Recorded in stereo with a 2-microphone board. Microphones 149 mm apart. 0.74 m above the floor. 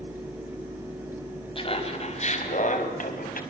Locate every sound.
1.6 s laughter: 35° left (ahead or behind), 5 m; by 3.4 s 70° left (ahead or behind), 5 m